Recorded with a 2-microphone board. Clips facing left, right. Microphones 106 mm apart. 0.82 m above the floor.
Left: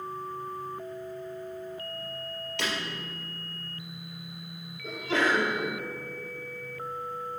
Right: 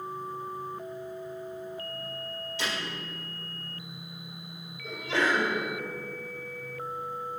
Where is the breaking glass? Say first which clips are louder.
Left 1 dB; 65° left (ahead or behind), 4 m.